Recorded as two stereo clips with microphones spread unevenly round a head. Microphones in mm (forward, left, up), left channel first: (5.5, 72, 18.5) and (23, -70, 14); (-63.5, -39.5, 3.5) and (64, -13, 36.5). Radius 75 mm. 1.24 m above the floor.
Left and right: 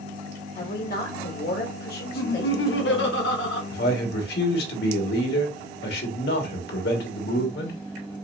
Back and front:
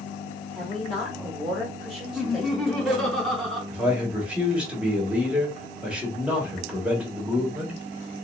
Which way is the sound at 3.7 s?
100° left.